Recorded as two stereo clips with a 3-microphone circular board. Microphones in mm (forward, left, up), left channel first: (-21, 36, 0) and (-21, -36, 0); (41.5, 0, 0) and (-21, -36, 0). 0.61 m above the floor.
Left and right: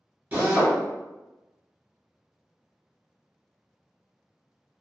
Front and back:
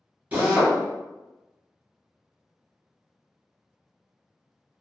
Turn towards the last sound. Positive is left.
turn(degrees=-110)